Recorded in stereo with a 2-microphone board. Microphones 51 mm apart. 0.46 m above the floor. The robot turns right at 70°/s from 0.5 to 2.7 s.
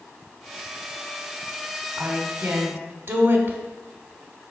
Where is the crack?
I don't hear a crack.